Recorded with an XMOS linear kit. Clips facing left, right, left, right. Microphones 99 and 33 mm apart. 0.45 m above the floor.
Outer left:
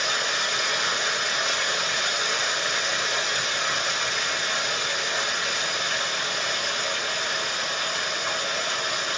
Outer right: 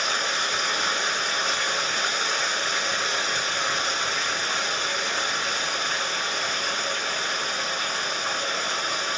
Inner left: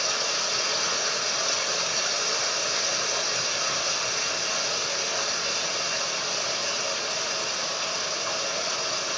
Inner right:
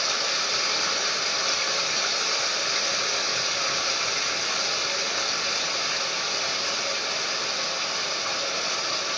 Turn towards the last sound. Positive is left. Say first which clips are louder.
# outer right 1 dB, inner right 1 dB
turn(degrees=-35)  # may be behind; listen again after turning